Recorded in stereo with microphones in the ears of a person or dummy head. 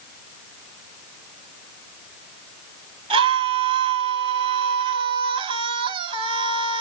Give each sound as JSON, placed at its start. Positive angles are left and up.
{"t": 3.1, "sound": "a scream", "side_deg": -30, "distance_m": 3.0}